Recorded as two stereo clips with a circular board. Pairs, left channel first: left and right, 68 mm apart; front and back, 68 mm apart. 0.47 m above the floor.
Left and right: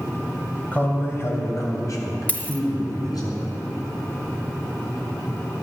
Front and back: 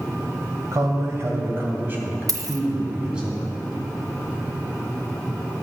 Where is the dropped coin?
155° left, 0.7 m.